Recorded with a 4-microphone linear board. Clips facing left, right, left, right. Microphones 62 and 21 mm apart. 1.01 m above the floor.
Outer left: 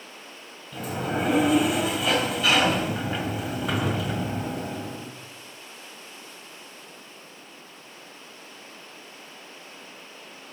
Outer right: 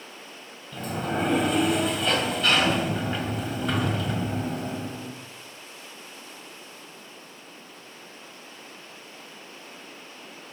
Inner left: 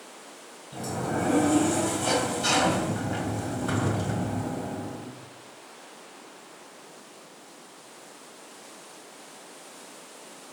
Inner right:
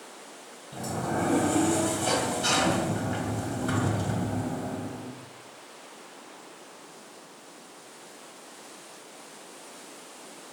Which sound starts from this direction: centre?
A sliding door, at 0.7 s.